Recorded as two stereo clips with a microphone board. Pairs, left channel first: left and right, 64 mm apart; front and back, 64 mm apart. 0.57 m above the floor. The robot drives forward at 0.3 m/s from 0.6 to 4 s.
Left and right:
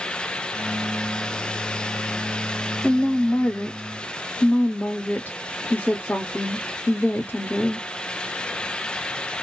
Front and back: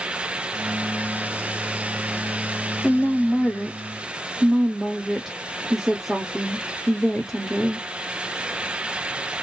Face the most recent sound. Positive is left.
turn(degrees=100)